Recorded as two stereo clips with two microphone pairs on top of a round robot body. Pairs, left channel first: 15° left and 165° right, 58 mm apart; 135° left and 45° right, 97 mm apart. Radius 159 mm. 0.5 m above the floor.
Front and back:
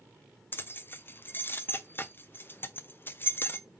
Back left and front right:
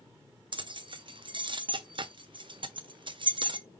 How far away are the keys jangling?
About 0.7 m.